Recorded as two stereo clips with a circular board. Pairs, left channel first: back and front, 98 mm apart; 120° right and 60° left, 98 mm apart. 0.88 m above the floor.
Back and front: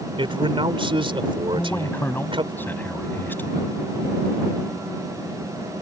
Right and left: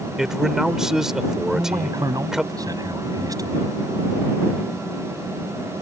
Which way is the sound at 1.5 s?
110° left.